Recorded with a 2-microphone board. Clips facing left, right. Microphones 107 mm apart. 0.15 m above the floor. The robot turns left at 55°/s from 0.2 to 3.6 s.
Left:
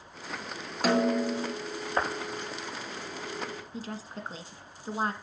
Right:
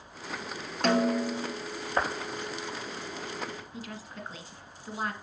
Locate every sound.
0.8 s a snare drum: 175° left, 0.5 m; by 1.5 s 140° left, 0.5 m
3.7 s a woman speaking: 35° left (ahead or behind), 1.2 m